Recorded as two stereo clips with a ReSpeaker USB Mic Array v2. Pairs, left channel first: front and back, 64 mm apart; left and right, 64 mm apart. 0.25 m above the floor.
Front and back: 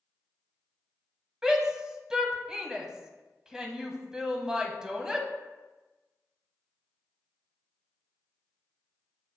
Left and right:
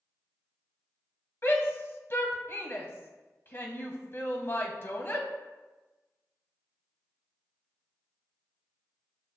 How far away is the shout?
About 1.2 m.